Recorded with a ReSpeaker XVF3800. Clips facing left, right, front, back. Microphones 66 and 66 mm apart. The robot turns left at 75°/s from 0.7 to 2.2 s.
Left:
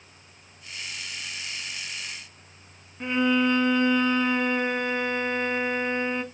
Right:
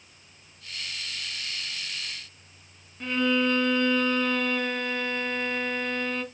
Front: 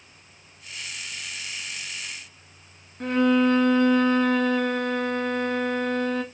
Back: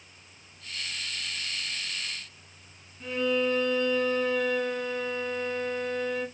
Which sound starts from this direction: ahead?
A violin, at 3.0 s.